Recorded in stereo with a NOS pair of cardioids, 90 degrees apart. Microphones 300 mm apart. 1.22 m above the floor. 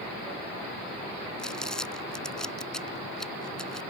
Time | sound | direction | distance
1.4 | crumpling | straight ahead | ?